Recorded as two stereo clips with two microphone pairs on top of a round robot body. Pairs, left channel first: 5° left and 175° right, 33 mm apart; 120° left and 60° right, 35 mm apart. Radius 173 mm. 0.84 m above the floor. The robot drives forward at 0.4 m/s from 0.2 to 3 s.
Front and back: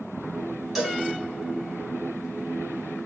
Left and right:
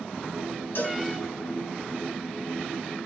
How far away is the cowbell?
About 3 m.